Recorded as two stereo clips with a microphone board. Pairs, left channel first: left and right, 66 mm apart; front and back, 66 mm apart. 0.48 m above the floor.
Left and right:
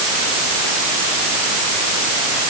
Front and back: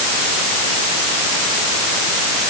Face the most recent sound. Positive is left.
No sound to turn to.